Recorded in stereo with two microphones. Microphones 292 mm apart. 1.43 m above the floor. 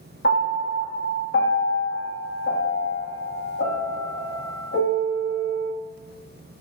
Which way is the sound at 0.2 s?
40° left (ahead or behind).